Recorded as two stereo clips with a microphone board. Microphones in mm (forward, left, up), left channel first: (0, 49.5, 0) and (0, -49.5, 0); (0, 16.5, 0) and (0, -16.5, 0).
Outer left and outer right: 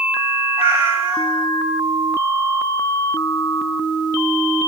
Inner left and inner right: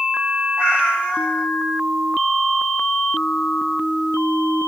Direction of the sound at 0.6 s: 80° left.